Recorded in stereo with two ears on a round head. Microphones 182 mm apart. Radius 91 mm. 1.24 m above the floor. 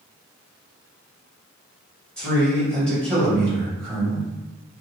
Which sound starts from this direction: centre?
A man speaking, at 2.2 s.